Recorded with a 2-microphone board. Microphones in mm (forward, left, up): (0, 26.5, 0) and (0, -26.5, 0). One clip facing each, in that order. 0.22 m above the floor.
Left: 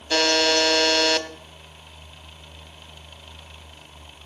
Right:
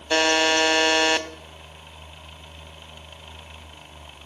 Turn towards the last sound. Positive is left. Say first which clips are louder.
# right 1 dB
turn(degrees=-20)  # may be behind; listen again after turning